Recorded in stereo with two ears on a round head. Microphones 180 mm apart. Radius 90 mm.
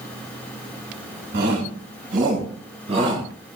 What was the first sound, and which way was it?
A shout, 55° right (ahead or behind).